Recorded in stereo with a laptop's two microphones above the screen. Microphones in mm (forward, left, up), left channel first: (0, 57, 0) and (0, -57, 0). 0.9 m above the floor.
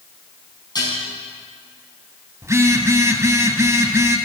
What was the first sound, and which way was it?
Dishes clattering, 35° left (ahead or behind).